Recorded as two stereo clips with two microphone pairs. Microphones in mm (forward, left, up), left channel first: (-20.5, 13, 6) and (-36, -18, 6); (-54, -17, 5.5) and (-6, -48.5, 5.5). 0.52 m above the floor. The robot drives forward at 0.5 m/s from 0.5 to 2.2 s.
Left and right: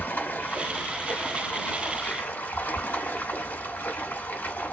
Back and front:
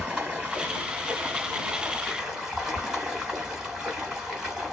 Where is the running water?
30° left, 2.5 m; by 4.7 s 45° left, 1.9 m.